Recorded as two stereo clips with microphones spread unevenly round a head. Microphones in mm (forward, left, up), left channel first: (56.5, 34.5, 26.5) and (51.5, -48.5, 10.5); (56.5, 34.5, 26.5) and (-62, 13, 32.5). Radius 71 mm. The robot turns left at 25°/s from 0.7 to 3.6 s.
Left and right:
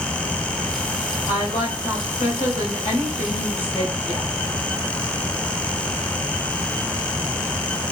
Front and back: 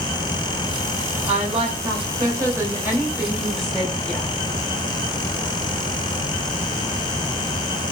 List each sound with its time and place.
1.3 s a woman speaking: 155° left, 2 m; by 4.3 s 95° left, 2 m